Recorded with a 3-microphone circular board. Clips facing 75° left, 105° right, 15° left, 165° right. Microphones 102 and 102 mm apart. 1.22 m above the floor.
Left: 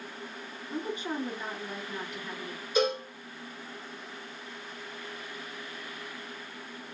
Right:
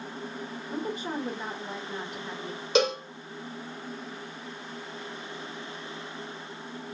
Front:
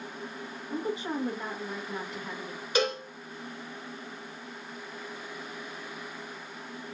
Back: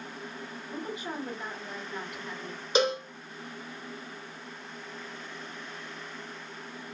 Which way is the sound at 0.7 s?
45° right.